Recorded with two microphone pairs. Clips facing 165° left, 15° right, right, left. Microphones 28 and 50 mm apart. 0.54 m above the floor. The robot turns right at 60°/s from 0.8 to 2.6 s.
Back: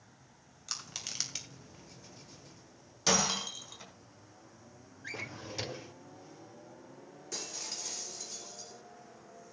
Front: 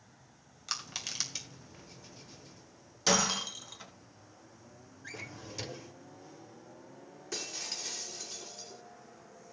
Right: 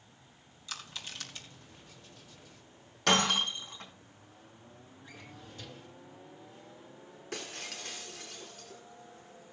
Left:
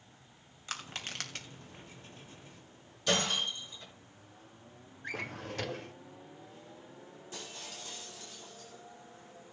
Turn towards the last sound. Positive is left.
turn(degrees=-90)